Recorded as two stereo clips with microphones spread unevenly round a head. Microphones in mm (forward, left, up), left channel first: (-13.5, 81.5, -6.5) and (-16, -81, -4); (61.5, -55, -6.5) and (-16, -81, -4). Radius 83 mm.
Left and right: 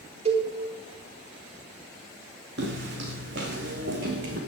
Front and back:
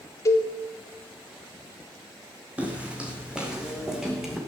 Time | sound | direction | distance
0.2 | a cowbell | 35° right | 3.5 m
2.6 | footsteps | 90° right | 3.5 m